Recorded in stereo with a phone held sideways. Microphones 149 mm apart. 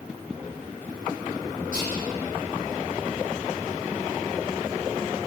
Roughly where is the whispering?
Left.